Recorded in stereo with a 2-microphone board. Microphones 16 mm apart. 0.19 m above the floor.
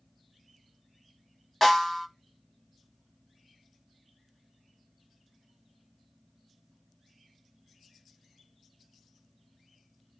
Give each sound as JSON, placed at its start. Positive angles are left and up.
{"t": 1.6, "sound": "a snare drum", "side_deg": 5, "distance_m": 1.0}